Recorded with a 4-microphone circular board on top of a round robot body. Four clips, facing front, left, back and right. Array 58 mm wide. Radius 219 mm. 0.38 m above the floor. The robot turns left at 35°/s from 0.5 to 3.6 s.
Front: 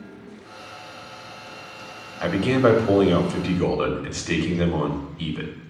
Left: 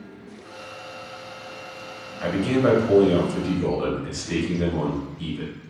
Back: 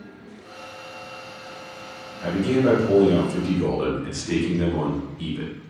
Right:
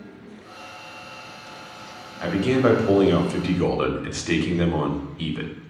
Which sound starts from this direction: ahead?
A man speaking, at 2.2 s.